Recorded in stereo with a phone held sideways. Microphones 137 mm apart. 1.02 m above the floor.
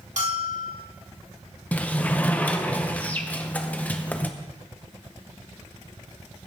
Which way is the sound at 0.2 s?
70° right (ahead or behind).